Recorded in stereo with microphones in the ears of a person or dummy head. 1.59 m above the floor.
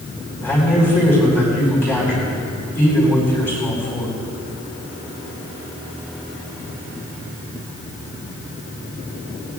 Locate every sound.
0.4 s a man speaking: 10° left (ahead or behind), 4.5 m